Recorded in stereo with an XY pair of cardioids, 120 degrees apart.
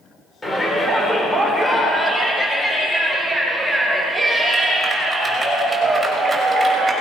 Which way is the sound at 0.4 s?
20° left.